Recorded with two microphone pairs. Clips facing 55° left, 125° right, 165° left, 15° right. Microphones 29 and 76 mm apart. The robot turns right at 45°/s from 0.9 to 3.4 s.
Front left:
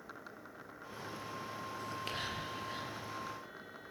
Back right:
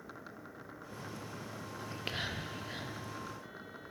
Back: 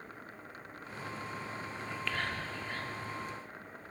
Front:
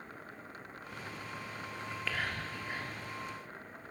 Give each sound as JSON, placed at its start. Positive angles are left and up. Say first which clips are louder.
{"t": 1.8, "sound": "whispering", "louder": "back right 2 dB, even", "azimuth_deg": -115, "distance_m": 1.1}